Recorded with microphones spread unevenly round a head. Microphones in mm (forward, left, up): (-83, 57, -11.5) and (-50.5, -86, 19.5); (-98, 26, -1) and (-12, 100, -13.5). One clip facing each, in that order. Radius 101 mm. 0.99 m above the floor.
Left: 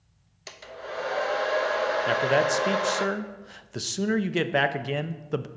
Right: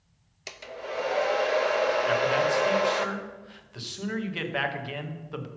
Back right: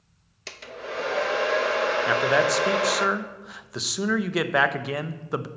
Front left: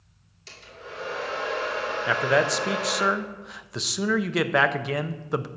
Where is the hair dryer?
155° right, 0.7 m.